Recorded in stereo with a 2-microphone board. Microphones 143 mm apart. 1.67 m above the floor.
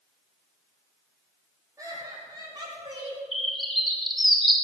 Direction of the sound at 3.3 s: Centre (ahead or behind).